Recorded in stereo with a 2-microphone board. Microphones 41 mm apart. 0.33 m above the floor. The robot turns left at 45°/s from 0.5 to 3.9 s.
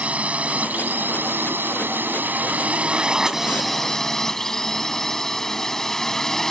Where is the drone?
40° right; by 6.5 s 170° left.